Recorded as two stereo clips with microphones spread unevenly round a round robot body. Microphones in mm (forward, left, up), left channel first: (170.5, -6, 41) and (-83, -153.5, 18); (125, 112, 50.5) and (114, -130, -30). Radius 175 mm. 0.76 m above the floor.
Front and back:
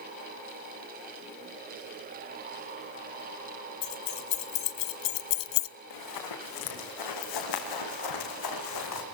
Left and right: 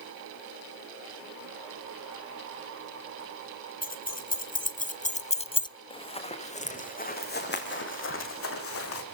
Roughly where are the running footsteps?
Ahead.